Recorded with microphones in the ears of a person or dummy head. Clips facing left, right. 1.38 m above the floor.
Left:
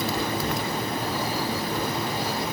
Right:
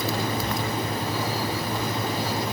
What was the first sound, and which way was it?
Only background noise.